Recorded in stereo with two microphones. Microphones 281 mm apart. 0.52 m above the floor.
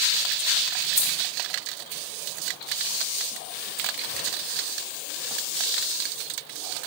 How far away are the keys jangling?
About 1.1 m.